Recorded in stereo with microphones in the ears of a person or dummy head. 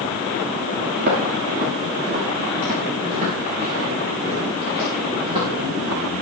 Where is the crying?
I don't hear crying.